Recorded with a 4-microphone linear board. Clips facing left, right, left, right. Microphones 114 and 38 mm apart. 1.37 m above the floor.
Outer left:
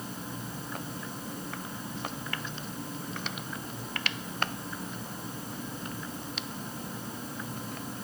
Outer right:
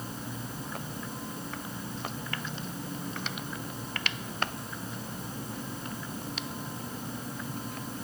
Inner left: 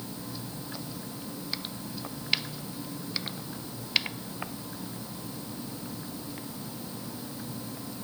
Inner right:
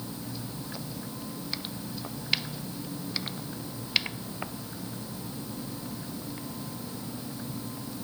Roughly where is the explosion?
No explosion in this recording.